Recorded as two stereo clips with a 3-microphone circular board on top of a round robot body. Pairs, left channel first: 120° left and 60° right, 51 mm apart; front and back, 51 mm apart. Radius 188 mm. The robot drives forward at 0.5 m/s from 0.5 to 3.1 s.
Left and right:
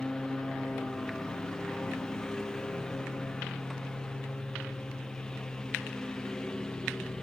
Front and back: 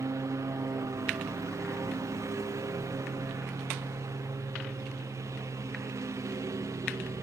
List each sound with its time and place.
0.0 s a lawn mower: 160° right